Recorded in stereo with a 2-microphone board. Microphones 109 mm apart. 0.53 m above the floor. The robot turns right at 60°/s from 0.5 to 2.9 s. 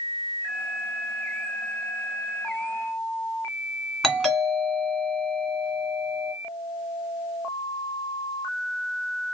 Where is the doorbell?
Centre (ahead or behind), 1.7 m.